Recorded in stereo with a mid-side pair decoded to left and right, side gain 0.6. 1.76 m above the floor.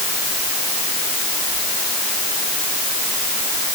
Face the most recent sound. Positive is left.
No sound to turn to.